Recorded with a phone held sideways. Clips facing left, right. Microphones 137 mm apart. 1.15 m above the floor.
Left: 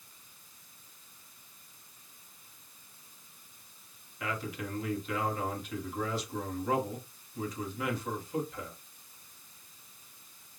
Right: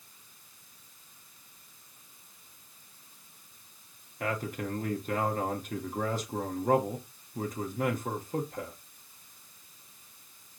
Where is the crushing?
I don't hear crushing.